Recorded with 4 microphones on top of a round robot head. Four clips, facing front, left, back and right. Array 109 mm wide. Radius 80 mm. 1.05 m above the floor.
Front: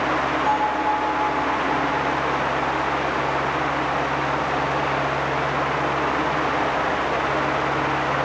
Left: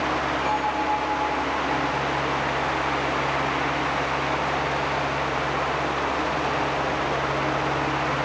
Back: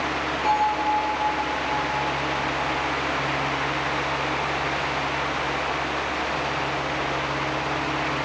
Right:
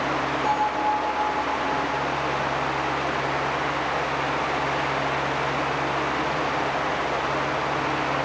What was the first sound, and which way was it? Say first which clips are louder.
A bell: right 3 dB, back 2 dB; 60° right.